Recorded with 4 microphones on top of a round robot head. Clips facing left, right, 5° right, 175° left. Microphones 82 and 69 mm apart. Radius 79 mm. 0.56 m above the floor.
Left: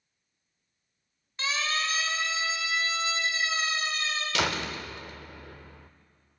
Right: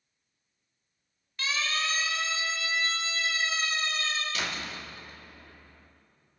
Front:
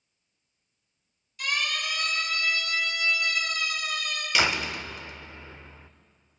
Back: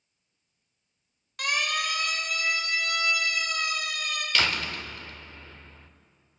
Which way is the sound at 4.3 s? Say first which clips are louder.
Left 6 dB, front 3 dB; 70° left.